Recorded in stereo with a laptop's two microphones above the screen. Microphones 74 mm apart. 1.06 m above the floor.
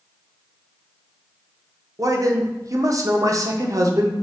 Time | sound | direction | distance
2.0 | a man speaking | 45° right (ahead or behind) | 0.6 m